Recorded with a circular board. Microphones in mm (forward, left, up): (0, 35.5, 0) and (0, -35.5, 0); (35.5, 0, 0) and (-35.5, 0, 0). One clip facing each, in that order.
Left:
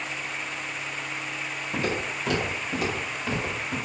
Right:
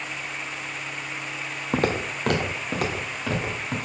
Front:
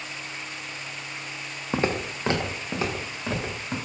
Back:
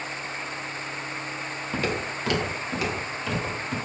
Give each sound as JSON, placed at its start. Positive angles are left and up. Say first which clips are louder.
{"t": 1.7, "sound": "footsteps", "louder": "right 5 dB, front 3 dB", "azimuth_deg": -60, "distance_m": 1.0}